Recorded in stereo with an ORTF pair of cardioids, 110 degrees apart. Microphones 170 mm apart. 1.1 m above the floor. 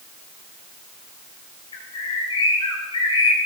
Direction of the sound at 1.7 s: 30° left.